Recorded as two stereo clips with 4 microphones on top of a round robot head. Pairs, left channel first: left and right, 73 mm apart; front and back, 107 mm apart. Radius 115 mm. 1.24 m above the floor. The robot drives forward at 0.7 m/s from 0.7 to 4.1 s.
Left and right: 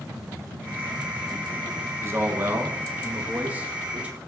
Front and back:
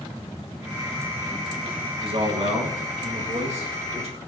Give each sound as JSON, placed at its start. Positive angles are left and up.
{"t": 2.0, "sound": "a man speaking", "azimuth_deg": -145, "distance_m": 1.5}